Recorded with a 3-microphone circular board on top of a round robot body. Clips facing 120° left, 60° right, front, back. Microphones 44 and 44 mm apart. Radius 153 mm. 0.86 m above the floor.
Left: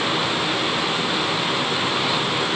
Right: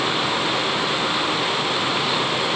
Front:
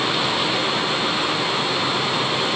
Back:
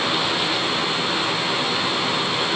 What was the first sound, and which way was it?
Only background noise.